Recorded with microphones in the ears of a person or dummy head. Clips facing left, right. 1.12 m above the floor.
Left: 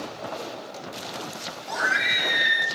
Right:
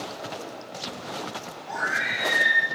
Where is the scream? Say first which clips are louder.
Left 2 dB; 50° left (ahead or behind), 1.7 m.